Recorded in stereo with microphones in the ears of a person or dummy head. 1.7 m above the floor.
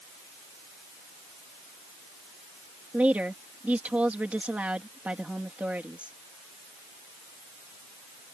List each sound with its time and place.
2.9 s a woman speaking: 5° right (ahead or behind)